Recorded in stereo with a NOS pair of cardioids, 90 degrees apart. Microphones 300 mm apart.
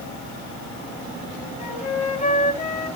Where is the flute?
25° left, 4 m.